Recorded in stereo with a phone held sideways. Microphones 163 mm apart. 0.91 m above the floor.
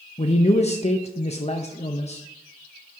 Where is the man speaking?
40° left (ahead or behind), 0.6 m.